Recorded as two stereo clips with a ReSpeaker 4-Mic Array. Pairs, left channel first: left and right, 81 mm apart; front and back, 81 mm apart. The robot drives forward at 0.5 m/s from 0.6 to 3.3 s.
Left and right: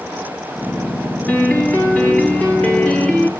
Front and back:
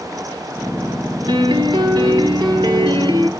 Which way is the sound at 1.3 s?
160° left.